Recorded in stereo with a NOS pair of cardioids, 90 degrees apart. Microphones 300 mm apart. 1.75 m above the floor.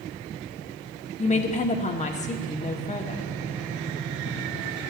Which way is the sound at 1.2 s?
25° left.